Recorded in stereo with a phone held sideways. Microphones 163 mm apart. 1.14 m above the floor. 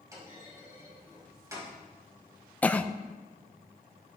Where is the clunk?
20° right (ahead or behind), 6 m.